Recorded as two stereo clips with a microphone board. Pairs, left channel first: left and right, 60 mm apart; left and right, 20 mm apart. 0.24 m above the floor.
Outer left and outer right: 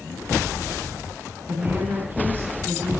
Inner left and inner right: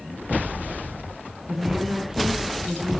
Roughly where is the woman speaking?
Right.